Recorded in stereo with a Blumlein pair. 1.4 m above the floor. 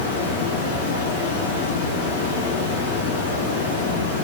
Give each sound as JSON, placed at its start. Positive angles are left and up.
{"t": 0.0, "sound": "running water", "azimuth_deg": 60, "distance_m": 0.8}